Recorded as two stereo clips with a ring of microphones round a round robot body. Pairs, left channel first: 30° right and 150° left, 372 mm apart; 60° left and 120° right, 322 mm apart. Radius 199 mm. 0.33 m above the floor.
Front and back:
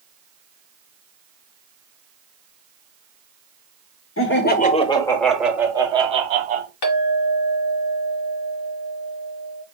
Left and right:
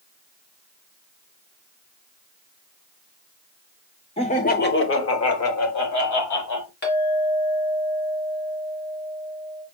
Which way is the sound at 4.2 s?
Straight ahead.